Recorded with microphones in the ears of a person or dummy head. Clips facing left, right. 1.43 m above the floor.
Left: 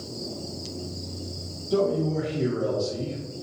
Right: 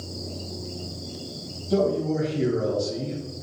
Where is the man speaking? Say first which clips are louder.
Right 1 dB; 60° right (ahead or behind), 1.4 m.